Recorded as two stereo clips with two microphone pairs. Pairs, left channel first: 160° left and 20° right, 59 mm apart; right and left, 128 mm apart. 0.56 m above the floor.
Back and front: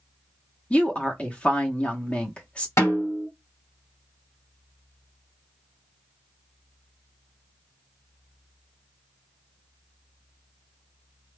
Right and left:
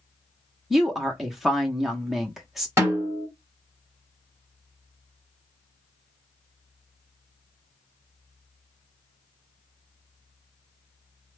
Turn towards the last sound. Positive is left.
turn(degrees=150)